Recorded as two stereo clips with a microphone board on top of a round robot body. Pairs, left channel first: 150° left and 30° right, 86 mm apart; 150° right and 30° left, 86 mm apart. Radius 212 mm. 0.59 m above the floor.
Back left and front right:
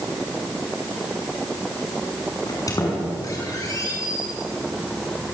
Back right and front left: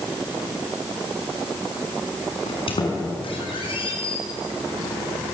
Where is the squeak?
160° right, 6 m.